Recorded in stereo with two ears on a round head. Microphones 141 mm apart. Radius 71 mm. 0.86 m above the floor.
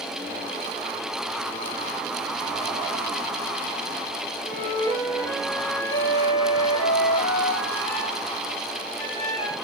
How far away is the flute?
About 8 m.